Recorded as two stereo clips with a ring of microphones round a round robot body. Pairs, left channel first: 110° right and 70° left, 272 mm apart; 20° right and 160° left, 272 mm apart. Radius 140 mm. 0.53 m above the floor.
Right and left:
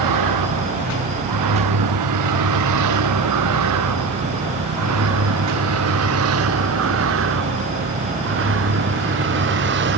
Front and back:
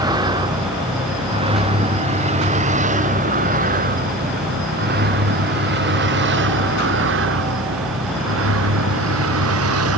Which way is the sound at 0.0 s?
80° left.